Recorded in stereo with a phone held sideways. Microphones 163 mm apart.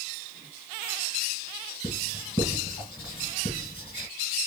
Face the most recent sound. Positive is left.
turn(degrees=35)  # may be behind; listen again after turning